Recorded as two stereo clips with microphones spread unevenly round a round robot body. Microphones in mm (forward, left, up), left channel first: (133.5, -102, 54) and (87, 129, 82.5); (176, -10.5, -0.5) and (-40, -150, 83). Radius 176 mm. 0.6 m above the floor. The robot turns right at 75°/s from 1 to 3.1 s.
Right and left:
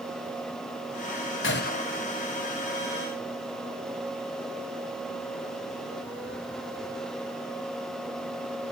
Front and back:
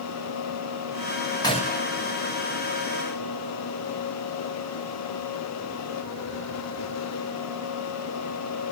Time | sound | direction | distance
1.4 | a gunshot | 45° right | 2 m